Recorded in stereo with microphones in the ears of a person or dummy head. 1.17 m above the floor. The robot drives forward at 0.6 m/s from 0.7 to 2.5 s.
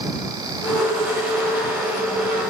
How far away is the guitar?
I don't hear a guitar.